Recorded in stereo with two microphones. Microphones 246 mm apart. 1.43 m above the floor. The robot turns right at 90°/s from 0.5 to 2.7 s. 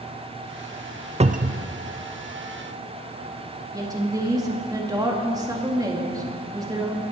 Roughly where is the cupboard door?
Behind right.